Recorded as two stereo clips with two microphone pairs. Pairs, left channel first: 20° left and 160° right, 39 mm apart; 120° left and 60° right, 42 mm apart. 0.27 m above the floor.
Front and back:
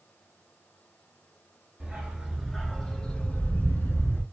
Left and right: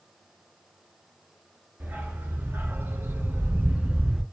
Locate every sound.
1.8 s a dog barking: 90° right, 1.0 m; by 4.2 s 10° left, 0.8 m